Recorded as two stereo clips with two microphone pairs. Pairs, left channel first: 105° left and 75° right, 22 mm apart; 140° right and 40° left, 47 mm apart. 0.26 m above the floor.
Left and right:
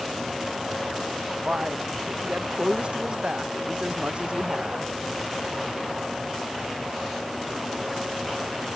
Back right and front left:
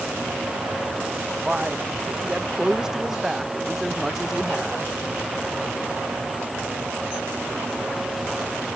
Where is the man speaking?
35° right; by 5.0 s 45° right.